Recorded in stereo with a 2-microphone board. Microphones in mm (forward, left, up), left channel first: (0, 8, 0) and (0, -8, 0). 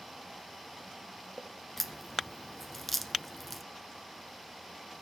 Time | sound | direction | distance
1.8 | a crack | 5° left (ahead or behind) | 1.0 m